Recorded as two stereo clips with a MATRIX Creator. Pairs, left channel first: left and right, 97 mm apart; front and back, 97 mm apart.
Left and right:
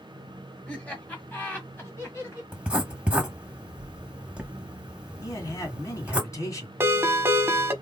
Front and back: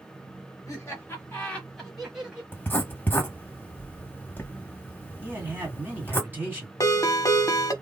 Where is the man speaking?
120° left, 1.9 m.